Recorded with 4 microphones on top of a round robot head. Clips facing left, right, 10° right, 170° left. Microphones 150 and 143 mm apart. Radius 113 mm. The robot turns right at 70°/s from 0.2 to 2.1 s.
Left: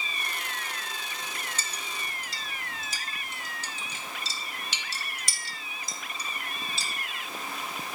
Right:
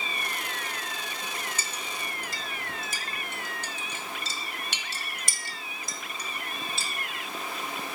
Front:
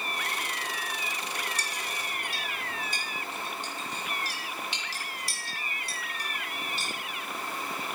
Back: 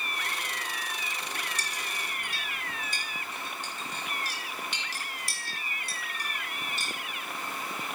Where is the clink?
170° right, 1.3 m; by 6.9 s 130° right, 1.3 m.